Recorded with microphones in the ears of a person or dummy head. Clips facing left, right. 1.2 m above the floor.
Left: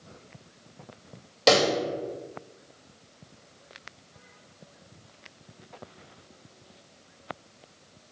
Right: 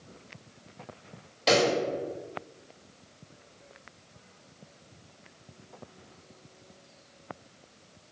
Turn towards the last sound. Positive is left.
turn(degrees=65)  # may be behind; listen again after turning